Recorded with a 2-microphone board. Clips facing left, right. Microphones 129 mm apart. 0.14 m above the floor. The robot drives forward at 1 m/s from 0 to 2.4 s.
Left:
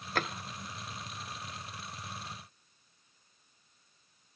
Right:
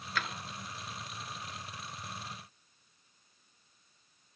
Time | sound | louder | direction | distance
0.1 | a drawer | left 4 dB | 50° left (ahead or behind) | 0.6 m